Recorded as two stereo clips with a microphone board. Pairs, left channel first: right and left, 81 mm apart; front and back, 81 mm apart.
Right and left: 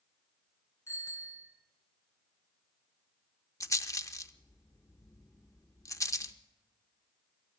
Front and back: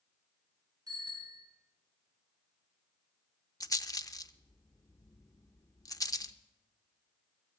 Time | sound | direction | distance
0.9 | a bicycle bell | 140° right | 5 m
3.6 | a rattle | 45° right | 0.6 m